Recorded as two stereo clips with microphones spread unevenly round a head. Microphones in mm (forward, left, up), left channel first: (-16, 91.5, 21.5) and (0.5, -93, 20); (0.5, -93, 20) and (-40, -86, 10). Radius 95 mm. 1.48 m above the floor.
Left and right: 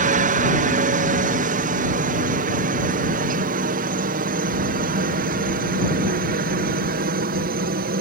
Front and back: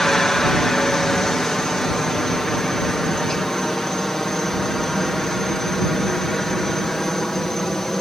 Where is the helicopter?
90° right; by 8.0 s 95° right.